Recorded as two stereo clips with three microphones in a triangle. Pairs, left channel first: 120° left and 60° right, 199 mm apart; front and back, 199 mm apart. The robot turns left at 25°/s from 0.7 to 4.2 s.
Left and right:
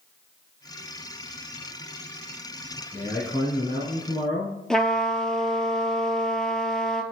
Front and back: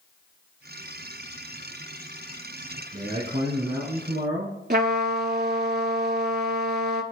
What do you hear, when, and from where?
2.9 s a man speaking: 165° right, 4 m; by 4.6 s 165° left, 4 m
4.7 s a trumpet: 155° right, 0.5 m